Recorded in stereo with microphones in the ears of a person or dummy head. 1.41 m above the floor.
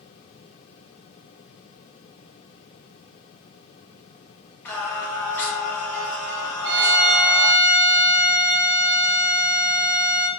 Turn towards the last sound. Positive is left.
turn(degrees=-65)  # may be behind; listen again after turning